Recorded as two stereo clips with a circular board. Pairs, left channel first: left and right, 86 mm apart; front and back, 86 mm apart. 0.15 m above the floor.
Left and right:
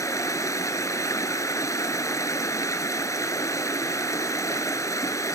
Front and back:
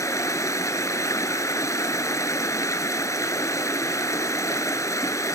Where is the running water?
45° left, 1.2 m.